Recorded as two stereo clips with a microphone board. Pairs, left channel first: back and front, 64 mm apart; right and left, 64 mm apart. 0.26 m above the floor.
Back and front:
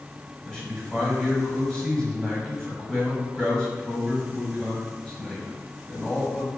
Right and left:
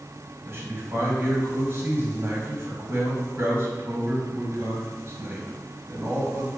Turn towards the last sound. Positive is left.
turn(degrees=105)